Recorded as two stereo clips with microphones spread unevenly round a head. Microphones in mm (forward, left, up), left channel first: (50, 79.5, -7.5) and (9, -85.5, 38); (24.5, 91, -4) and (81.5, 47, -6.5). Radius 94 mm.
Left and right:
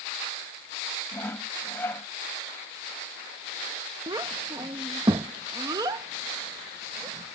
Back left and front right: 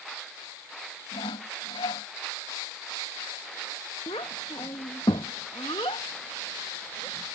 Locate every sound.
1.1 s sawing: 160° left
4.1 s a child speaking: 175° right